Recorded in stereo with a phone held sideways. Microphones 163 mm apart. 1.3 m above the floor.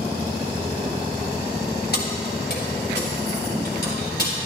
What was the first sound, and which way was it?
Keys jangling, 65° left (ahead or behind).